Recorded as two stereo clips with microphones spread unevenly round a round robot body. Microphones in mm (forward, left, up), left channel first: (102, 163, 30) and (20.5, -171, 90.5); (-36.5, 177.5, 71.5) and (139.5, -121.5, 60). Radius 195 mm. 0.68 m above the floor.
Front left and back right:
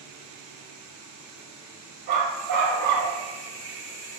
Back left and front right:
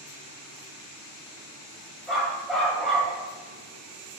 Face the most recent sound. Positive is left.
turn(degrees=-150)